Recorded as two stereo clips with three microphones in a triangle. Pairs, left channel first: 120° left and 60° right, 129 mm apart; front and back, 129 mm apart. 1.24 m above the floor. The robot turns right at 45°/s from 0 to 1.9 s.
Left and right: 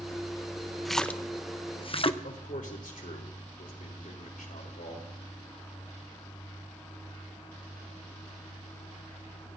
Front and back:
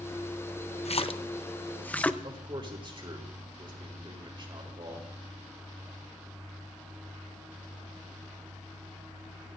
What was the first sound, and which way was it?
A splash, 30° left.